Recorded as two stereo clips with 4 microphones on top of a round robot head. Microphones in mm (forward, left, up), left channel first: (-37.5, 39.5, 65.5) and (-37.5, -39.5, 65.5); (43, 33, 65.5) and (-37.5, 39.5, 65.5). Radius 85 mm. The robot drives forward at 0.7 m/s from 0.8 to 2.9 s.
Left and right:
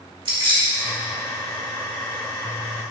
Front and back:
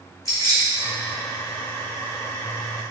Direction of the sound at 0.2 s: 65° right.